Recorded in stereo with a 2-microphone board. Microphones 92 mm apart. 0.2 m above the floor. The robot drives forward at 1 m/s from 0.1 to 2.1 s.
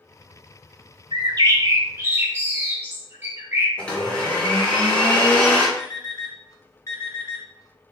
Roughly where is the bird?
Right.